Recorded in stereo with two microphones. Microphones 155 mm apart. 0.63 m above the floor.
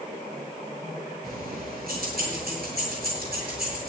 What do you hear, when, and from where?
1.2 s keys jangling: 75° right (ahead or behind), 7.5 m; by 3.9 s 85° right, 8.5 m